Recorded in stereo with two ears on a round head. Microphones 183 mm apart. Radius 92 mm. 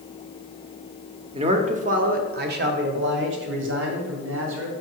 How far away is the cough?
I don't hear a cough.